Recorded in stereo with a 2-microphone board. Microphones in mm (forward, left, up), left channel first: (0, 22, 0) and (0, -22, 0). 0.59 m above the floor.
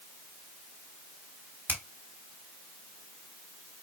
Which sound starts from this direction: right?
A finger snap, at 1.7 s.